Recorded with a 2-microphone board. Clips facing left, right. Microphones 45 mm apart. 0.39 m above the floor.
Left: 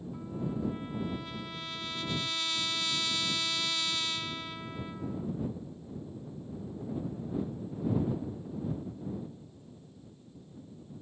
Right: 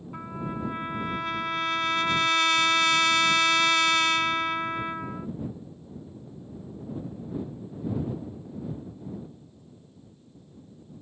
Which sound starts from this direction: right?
A trumpet, at 0.1 s.